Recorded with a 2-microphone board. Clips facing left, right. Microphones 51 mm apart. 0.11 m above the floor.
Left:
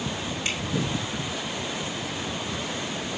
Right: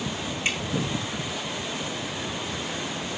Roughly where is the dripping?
Right.